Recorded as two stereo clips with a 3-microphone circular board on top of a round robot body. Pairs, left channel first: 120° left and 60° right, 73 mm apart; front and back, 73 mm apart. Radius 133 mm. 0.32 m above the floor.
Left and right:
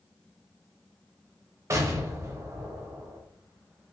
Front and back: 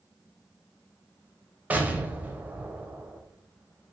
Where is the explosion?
110° right, 0.7 m.